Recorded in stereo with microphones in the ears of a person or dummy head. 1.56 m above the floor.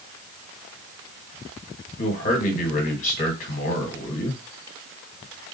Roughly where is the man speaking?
Left.